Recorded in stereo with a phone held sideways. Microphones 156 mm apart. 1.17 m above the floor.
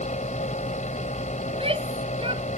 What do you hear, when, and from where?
0.0 s a fan: 50° left (ahead or behind)
1.5 s a shout: 35° right (ahead or behind)